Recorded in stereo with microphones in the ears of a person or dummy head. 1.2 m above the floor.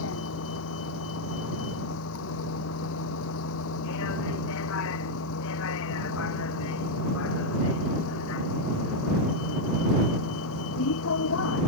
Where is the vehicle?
75° left (ahead or behind); by 11.7 s 80° left.